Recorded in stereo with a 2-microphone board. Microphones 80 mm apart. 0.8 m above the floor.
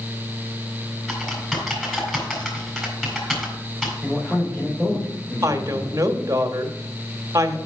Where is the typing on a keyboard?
5° left (ahead or behind), 4 m.